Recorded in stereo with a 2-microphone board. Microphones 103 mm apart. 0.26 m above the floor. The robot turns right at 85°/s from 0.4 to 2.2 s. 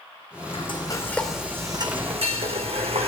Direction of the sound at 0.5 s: 115° left.